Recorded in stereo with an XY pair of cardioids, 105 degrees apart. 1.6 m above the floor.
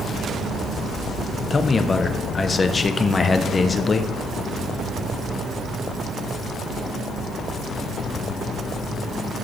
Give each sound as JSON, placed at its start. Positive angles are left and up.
{"t": 1.5, "sound": "a man speaking", "azimuth_deg": 30, "distance_m": 1.0}